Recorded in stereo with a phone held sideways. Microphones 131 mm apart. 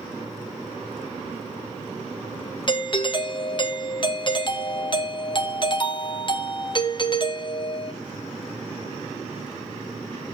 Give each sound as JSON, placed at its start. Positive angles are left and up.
{"t": 2.7, "sound": "a doorbell", "side_deg": 40, "distance_m": 1.0}